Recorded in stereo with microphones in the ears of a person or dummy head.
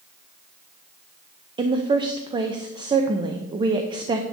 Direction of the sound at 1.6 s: 25° right (ahead or behind).